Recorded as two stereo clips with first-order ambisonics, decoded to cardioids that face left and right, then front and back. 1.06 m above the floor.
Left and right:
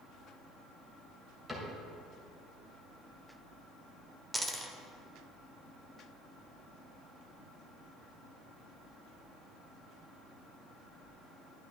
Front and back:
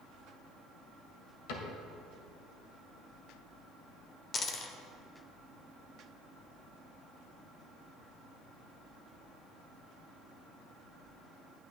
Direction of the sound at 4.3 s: 20° right.